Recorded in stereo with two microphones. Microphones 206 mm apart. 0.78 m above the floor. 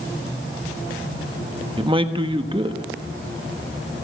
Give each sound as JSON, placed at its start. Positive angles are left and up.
{"t": 1.8, "sound": "a man speaking", "side_deg": -25, "distance_m": 1.1}